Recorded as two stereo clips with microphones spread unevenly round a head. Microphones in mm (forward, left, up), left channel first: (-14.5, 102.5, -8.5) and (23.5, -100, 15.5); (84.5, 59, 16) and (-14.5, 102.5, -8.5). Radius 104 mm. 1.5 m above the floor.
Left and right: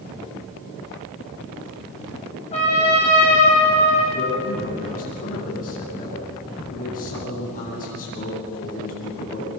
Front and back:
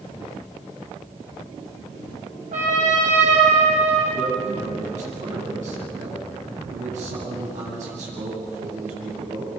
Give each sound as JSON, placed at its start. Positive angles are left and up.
{"t": 2.5, "sound": "a trumpet", "azimuth_deg": 165, "distance_m": 8.0}
{"t": 4.1, "sound": "a man speaking", "azimuth_deg": 155, "distance_m": 9.5}